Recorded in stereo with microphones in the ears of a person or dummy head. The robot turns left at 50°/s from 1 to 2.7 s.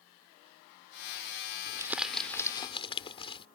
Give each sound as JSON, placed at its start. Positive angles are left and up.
{"t": 1.7, "sound": "crumpling", "azimuth_deg": -160}